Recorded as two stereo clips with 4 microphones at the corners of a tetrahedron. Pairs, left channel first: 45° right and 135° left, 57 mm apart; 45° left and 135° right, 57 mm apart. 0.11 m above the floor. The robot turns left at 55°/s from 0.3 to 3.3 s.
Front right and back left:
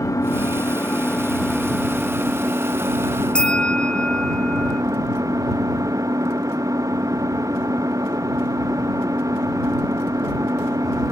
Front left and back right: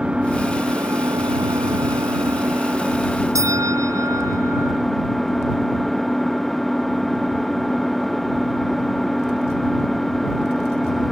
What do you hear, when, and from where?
0.0 s an engine running: 65° right; by 11.1 s 130° left
3.4 s a bell: 115° right